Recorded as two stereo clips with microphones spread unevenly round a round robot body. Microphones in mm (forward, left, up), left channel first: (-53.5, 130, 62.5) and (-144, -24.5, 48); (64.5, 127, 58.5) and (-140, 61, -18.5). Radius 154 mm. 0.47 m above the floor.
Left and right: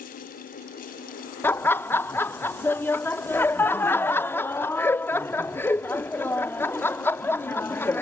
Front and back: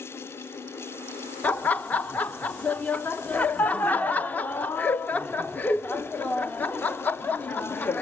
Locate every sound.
1.4 s laughter: 135° left